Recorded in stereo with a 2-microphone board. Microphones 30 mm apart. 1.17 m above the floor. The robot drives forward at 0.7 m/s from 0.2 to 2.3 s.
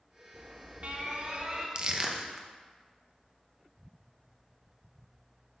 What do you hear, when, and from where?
0.3 s an alarm: 65° right (ahead or behind), 1.1 m; by 1.6 s 35° right (ahead or behind), 1.7 m
1.8 s crushing: 35° right (ahead or behind), 0.6 m; by 2.5 s 20° right (ahead or behind), 0.9 m